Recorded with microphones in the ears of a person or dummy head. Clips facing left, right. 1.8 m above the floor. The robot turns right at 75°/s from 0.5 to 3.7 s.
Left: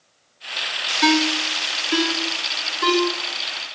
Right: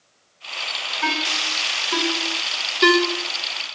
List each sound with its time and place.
1.0 s a ringtone: 45° left (ahead or behind), 1.6 m; by 3.0 s 30° right (ahead or behind), 1.6 m